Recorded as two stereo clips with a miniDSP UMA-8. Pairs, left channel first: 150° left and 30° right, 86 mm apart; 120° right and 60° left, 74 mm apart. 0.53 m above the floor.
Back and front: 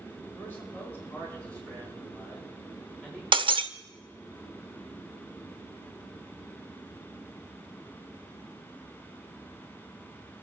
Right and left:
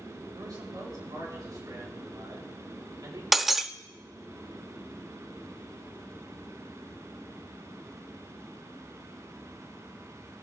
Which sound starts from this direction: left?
A man speaking, at 0.3 s.